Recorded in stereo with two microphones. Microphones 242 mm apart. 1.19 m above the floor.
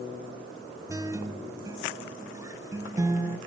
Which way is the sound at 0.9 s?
10° right (ahead or behind).